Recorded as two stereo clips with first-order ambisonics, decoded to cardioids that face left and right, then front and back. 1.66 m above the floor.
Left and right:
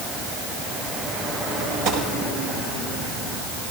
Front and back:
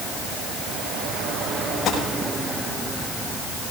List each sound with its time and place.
1.9 s a gunshot: 70° right, 7.5 m